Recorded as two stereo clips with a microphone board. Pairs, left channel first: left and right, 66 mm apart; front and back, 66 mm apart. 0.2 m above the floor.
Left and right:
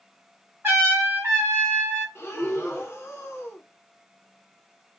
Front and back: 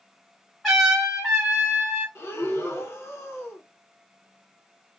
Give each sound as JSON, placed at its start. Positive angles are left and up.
{"t": 0.6, "sound": "a trumpet", "azimuth_deg": -95, "distance_m": 1.7}
{"t": 2.1, "sound": "breathing", "azimuth_deg": 40, "distance_m": 0.9}